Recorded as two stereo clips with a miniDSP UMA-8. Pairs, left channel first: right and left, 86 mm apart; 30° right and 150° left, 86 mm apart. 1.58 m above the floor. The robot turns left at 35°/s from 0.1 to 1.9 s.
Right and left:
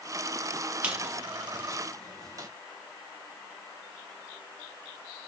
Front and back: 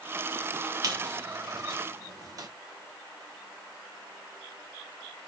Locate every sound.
0.8 s a squeak: 160° left, 0.8 m; by 2.5 s 120° left, 0.8 m